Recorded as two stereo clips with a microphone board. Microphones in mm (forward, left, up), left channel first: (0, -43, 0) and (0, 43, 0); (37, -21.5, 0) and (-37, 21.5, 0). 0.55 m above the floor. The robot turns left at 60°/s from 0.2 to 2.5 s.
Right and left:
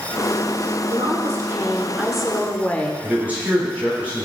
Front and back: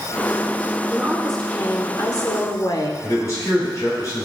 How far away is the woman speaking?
About 1.4 m.